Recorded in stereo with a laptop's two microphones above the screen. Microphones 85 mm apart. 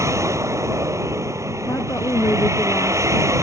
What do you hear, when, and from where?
0.0 s a vehicle: 35° right (ahead or behind)
1.7 s a woman speaking: 35° left (ahead or behind)